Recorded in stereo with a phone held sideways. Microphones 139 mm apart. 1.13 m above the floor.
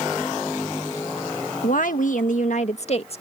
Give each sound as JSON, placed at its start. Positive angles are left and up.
{"t": 1.6, "sound": "a woman speaking", "side_deg": 70}